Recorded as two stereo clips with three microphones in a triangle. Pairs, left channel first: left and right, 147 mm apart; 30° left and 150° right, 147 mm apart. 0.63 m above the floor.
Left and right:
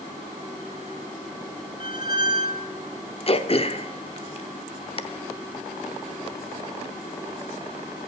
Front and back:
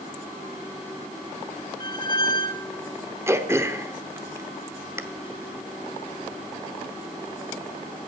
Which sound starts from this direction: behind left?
Throat clearing, at 3.3 s.